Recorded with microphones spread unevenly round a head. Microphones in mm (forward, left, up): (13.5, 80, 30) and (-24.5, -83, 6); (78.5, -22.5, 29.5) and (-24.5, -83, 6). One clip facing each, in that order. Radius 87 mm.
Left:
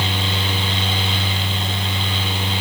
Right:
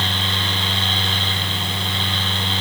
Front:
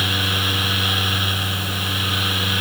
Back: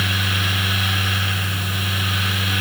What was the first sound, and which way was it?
Only background noise.